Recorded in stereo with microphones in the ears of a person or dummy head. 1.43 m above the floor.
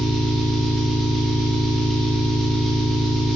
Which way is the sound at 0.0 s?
Centre (ahead or behind).